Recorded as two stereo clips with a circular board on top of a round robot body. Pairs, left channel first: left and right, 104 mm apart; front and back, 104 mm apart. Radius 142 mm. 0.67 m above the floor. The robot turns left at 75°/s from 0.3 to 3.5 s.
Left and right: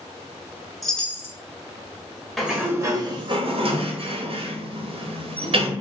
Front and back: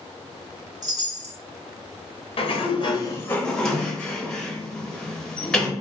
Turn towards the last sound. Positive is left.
turn(degrees=-85)